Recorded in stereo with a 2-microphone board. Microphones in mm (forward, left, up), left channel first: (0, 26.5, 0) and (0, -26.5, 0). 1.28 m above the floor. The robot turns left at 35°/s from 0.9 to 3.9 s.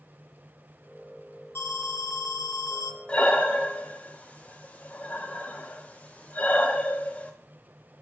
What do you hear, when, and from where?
1.6 s an alarm: 130° left, 0.5 m; by 3.0 s 80° left, 0.5 m
3.1 s breathing: 20° left (ahead or behind), 0.6 m; by 7.3 s 25° left (ahead or behind), 0.6 m